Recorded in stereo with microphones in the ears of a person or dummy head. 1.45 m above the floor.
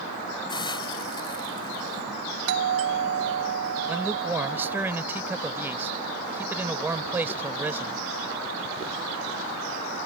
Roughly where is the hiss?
Left.